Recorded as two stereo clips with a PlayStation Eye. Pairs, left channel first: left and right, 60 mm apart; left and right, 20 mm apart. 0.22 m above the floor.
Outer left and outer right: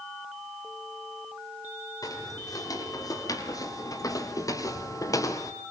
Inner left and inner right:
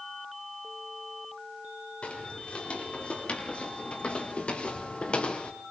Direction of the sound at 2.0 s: 75° left (ahead or behind).